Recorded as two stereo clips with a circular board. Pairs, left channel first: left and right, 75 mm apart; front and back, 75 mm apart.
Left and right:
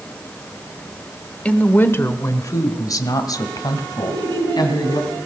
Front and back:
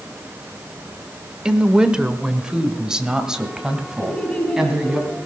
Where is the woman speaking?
120° left, 0.9 m; by 5.0 s 100° left, 3 m.